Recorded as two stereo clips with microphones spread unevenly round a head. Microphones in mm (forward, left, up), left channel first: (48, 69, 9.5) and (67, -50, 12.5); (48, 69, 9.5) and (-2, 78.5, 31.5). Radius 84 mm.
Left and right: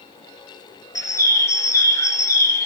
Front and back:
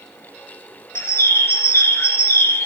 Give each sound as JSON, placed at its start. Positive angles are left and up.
{"t": 0.9, "sound": "a bird", "azimuth_deg": 35, "distance_m": 1.6}